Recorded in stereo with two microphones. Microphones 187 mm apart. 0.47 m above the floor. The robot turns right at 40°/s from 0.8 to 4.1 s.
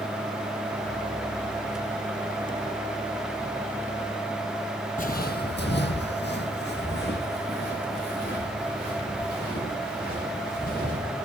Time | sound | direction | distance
5.0 | footsteps | 45° left (ahead or behind) | 0.8 m